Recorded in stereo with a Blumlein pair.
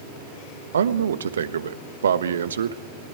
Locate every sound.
0.7 s a man speaking: 65° right, 1.2 m